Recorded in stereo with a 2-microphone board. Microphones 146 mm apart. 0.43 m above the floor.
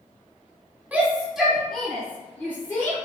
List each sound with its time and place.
0.9 s a shout: 10° right (ahead or behind), 1.0 m; by 3.0 s 20° left (ahead or behind), 1.2 m